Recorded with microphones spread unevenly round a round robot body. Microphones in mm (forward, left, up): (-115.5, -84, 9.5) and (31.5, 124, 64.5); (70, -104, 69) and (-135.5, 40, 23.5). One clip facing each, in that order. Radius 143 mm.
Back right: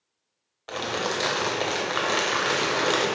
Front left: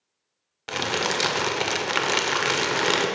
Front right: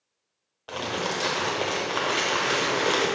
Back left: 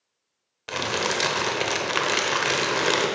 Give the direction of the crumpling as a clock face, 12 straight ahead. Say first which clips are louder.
Front left 1 dB, back left 2 dB; 8 o'clock.